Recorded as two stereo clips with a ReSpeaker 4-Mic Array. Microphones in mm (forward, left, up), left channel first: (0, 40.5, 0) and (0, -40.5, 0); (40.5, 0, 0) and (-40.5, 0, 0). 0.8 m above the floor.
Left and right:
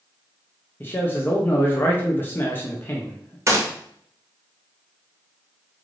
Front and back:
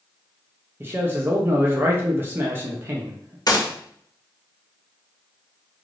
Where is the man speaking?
135° left, 0.5 m.